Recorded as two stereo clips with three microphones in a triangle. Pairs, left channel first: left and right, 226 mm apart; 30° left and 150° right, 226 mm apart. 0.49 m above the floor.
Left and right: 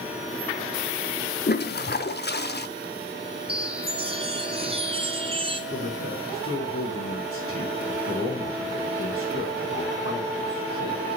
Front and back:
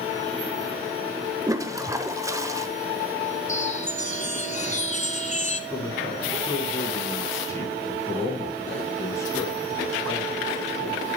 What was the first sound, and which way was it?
A toilet flushing, 135° left.